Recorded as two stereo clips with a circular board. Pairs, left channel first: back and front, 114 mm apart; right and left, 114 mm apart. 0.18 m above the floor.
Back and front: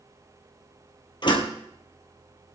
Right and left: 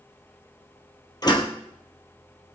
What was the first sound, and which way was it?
A door slam, 140° right.